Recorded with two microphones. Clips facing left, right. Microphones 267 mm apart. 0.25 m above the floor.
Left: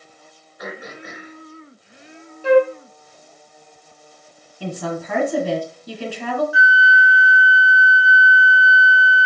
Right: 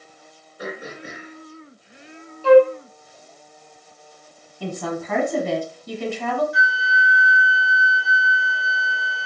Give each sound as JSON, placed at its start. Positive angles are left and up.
{"t": 0.6, "sound": "throat clearing", "side_deg": -35, "distance_m": 3.0}
{"t": 2.4, "sound": "a flute", "side_deg": 20, "distance_m": 0.5}
{"t": 4.6, "sound": "a woman speaking", "side_deg": 5, "distance_m": 1.4}
{"t": 6.5, "sound": "a flute", "side_deg": 5, "distance_m": 0.8}